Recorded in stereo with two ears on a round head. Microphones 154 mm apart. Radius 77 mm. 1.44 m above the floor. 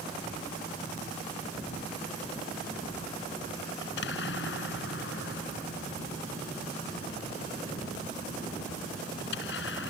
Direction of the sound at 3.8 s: 75° left (ahead or behind).